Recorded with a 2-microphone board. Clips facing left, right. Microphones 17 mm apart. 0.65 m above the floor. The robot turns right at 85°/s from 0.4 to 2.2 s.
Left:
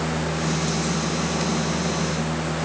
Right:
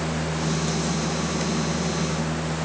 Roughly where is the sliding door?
No sliding door in this recording.